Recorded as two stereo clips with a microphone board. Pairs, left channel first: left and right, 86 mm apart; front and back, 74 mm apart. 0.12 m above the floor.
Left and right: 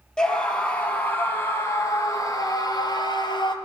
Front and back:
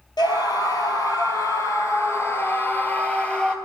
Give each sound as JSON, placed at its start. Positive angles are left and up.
{"t": 0.2, "sound": "a scream", "azimuth_deg": 10, "distance_m": 2.5}